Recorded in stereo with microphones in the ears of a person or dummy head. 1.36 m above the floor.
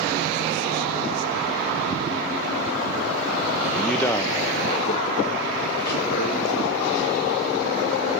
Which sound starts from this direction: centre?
A man speaking, at 3.6 s.